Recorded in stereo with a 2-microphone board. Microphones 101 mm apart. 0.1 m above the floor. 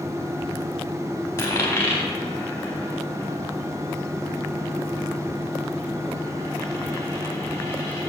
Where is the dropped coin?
25° left (ahead or behind), 4.5 m.